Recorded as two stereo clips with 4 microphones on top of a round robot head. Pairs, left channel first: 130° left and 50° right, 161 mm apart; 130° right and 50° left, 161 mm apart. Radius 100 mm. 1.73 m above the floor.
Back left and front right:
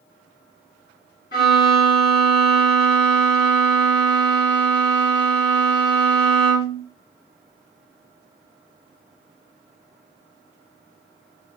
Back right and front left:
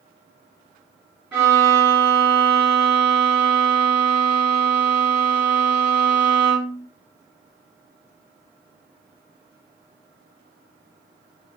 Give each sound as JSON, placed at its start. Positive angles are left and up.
{"t": 1.3, "sound": "a violin", "azimuth_deg": 130, "distance_m": 1.4}